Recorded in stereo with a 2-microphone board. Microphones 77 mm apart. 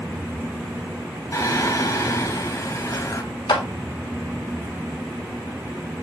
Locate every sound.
1.3 s singing: 40° left (ahead or behind), 1.6 m
3.5 s a clap: 80° left, 2 m